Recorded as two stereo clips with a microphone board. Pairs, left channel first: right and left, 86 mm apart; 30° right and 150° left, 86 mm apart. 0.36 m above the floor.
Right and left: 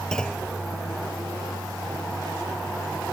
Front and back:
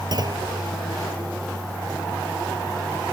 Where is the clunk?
170° right.